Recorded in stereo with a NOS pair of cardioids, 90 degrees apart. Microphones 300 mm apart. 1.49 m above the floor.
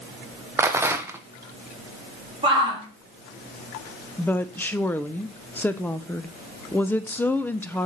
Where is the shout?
20° right, 3 m.